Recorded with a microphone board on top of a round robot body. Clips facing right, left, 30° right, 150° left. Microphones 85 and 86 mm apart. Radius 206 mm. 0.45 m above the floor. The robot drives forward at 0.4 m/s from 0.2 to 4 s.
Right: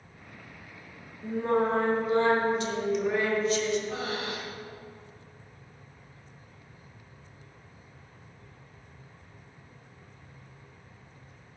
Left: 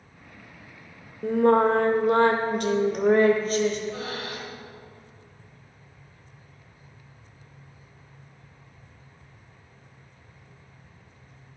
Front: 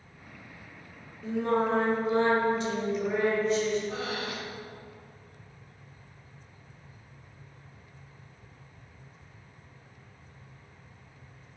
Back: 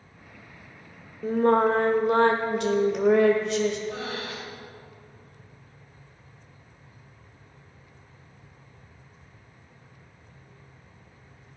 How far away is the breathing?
About 6 m.